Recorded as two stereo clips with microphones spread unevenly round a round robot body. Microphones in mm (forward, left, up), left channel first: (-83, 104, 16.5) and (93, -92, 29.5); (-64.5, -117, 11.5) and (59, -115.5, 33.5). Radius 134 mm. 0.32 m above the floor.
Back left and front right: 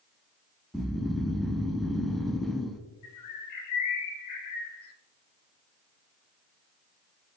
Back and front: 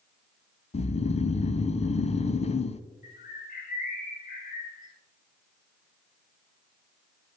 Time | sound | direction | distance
0.7 | snoring | 140° right | 0.6 m
3.0 | a bird | 150° left | 1.2 m